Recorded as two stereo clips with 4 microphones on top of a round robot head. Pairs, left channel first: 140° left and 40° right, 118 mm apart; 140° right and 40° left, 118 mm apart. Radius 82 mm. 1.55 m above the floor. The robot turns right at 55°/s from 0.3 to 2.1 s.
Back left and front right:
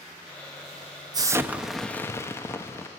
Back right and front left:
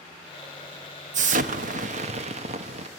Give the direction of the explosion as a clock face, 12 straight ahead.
11 o'clock.